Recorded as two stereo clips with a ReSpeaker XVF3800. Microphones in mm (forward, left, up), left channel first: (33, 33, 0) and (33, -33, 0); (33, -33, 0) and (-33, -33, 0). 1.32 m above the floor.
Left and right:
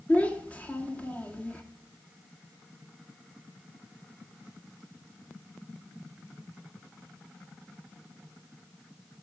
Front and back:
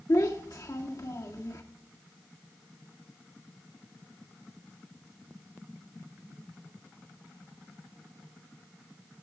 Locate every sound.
0.1 s a child speaking: 20° left, 1.9 m